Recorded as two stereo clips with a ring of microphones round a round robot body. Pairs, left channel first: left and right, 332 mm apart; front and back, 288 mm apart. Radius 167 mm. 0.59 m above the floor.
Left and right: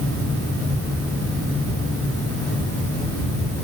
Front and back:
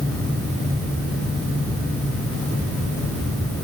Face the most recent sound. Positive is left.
No sound to turn to.